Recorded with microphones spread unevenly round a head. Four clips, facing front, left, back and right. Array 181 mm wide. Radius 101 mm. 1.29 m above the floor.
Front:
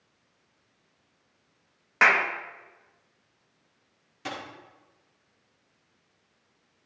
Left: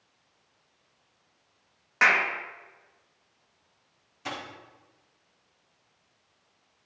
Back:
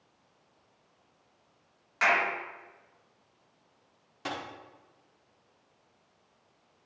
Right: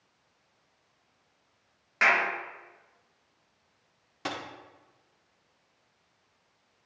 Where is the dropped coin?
85° right, 1.5 m.